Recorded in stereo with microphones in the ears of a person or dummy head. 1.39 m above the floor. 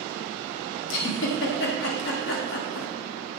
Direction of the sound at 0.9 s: 70° left (ahead or behind).